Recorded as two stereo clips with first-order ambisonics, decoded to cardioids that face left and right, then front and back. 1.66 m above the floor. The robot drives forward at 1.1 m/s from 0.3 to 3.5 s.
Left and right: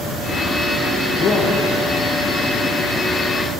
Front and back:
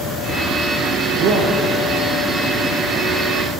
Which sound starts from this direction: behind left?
A man speaking, at 1.2 s.